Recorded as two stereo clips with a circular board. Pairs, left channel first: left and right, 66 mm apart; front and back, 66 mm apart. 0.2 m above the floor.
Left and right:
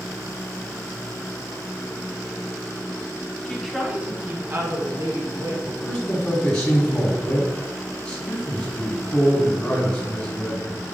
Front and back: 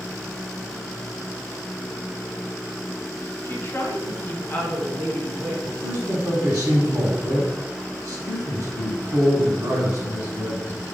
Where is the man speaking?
140° left, 1.7 m.